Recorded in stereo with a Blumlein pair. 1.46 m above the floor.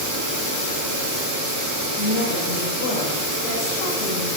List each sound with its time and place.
2.0 s a woman speaking: 50° left, 7 m